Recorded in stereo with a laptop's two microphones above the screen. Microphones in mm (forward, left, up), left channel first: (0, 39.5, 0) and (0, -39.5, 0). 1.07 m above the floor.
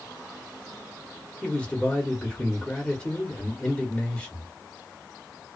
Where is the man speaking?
10° left (ahead or behind), 1.0 m.